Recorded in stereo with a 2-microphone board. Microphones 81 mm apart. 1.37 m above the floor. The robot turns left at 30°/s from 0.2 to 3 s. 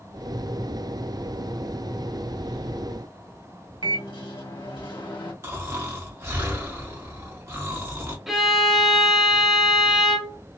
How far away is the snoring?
About 1.0 m.